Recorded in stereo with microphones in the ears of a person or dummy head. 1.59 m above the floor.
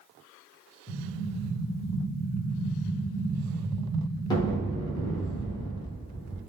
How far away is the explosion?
About 0.8 m.